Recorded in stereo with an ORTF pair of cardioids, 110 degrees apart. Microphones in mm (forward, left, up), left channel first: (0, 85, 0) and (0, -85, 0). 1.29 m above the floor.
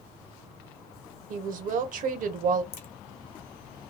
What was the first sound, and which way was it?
A woman speaking, 55° right.